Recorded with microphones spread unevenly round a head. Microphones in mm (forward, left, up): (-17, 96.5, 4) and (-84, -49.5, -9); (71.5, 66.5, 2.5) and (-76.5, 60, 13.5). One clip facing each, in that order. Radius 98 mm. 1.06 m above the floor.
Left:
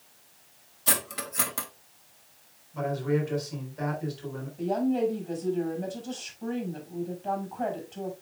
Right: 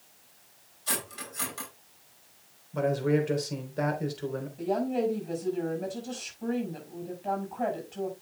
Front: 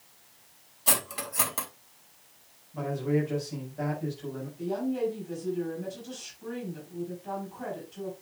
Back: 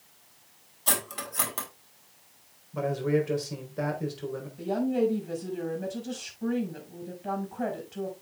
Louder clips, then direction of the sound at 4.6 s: Left 2 dB, back 3 dB; 160° left.